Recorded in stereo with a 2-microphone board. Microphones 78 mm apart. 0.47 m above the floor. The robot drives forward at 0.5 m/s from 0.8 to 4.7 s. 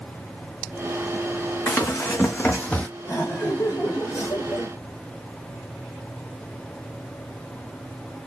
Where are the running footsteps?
35° left (ahead or behind), 1.8 m; by 2.9 s 15° left (ahead or behind), 0.8 m.